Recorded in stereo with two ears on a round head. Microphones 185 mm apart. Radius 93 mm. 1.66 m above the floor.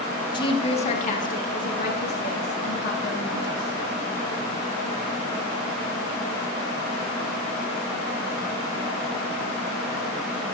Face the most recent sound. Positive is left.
turn(degrees=60)  # may be behind; listen again after turning